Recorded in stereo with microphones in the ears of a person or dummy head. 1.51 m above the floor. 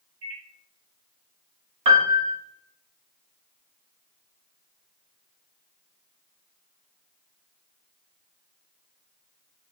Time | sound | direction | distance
0.2 | a microwave | 70° right (ahead or behind) | 0.9 m
1.9 | a piano | 30° right (ahead or behind) | 0.8 m